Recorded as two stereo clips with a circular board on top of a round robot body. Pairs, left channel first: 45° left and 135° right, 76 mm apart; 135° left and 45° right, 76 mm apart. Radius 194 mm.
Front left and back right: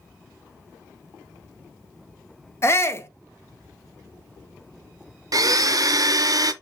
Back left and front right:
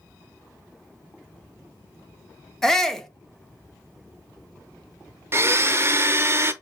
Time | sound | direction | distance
2.6 | a shout | 55° left | 1.0 m
5.3 | a blender | 100° right | 0.5 m